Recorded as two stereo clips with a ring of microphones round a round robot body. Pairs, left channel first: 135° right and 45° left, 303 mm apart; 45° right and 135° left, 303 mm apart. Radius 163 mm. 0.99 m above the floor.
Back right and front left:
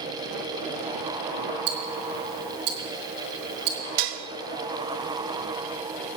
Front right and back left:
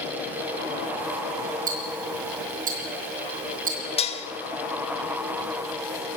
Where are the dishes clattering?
25° left, 1.4 m.